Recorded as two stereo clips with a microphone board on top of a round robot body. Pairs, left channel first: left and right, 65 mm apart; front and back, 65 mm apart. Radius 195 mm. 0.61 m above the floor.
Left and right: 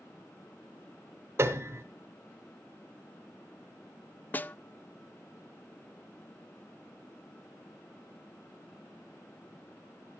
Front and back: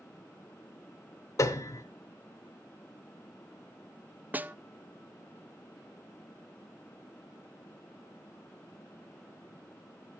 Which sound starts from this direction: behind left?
A snare drum, at 4.3 s.